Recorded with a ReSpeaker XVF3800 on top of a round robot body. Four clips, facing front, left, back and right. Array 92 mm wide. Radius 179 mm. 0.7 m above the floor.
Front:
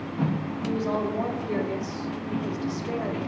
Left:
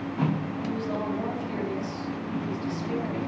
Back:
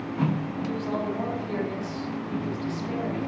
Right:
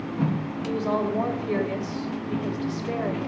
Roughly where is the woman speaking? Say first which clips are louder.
Right 6 dB, front 4 dB; right.